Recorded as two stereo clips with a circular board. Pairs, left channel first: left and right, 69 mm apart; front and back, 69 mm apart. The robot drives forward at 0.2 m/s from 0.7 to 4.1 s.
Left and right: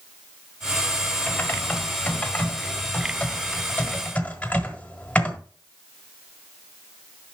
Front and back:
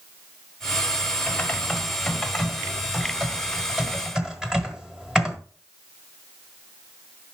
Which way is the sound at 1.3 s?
50° left.